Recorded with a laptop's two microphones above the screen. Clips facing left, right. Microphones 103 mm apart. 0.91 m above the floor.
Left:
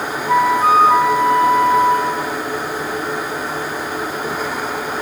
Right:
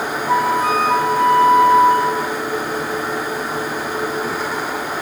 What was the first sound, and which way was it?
A flute, 10° right (ahead or behind).